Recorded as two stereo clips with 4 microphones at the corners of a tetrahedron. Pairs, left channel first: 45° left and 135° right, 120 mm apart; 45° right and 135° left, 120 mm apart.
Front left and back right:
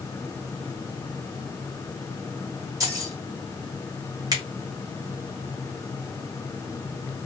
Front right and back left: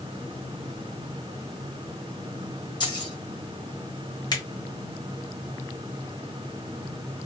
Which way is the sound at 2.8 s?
80° right.